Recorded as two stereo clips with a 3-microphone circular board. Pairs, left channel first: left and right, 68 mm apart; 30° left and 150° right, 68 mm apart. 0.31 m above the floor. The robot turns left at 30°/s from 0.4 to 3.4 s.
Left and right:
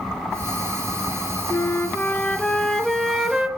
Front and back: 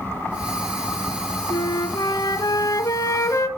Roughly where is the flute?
Ahead left.